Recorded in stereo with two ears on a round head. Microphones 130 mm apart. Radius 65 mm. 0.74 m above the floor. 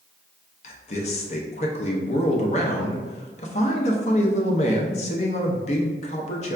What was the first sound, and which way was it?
A man speaking, 50° left (ahead or behind).